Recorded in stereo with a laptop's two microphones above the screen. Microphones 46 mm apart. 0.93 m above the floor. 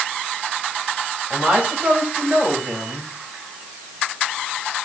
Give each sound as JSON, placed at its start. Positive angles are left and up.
{"t": 1.3, "sound": "a woman speaking", "side_deg": -30, "distance_m": 4.5}